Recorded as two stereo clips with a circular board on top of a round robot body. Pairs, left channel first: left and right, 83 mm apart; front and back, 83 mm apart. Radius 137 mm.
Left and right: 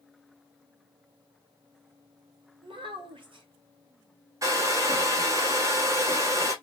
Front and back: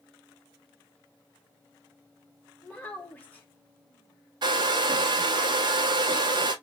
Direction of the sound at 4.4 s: 145° right.